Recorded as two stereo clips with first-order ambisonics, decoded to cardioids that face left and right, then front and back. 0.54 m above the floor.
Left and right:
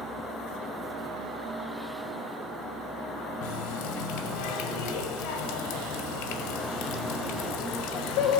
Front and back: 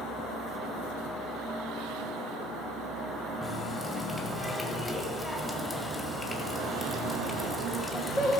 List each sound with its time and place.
3.4 s a running tap: 90° left, 2.0 m